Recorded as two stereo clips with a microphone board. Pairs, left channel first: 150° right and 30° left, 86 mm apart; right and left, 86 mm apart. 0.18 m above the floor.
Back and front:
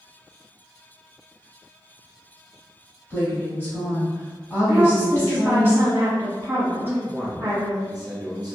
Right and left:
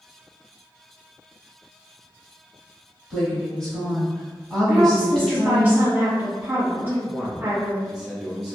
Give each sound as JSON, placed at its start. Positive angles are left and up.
{"t": 3.1, "sound": "a woman speaking", "azimuth_deg": -165, "distance_m": 1.3}
{"t": 4.7, "sound": "a woman speaking", "azimuth_deg": 55, "distance_m": 1.2}
{"t": 6.8, "sound": "a man speaking", "azimuth_deg": 10, "distance_m": 1.4}